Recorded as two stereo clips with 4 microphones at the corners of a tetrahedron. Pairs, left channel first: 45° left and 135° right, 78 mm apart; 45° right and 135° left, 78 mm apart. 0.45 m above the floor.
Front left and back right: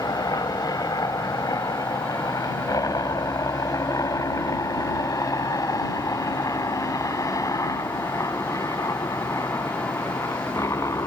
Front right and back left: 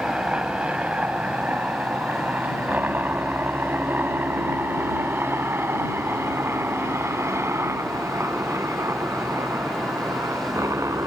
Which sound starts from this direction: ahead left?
A helicopter, at 0.0 s.